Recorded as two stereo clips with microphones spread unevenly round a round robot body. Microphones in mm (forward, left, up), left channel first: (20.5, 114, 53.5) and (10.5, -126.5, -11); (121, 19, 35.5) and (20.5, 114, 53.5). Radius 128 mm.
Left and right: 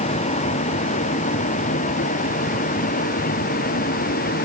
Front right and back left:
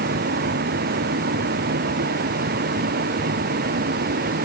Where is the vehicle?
155° left; by 4.5 s 145° left.